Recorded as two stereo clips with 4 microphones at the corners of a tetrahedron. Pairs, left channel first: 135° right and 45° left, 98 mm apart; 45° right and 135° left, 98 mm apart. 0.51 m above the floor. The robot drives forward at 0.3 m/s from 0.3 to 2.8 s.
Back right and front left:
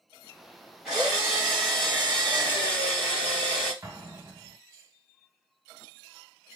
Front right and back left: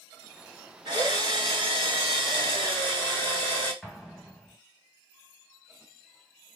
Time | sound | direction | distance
0.8 | a drill | 125° left | 1.2 m
3.8 | an explosion | 50° left | 0.7 m